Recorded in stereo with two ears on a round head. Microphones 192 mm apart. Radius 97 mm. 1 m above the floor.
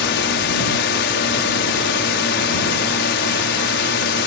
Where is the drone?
60° left (ahead or behind).